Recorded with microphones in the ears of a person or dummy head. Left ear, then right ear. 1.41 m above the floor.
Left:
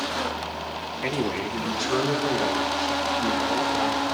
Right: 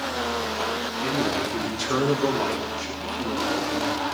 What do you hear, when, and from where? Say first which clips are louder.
1.0 s a man speaking: right 1 dB; 40° left (ahead or behind), 1.4 m; by 4.0 s 55° right (ahead or behind), 4 m